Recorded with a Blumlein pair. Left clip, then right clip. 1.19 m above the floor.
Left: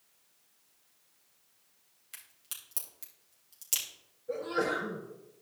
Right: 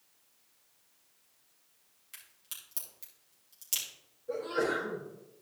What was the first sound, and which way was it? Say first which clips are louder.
A crack: left 1 dB; 10° left.